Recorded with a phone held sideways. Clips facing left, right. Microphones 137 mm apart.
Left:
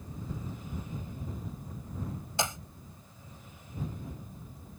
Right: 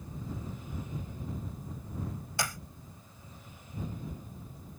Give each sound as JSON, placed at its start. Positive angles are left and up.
{"t": 2.4, "sound": "a clap", "side_deg": 20}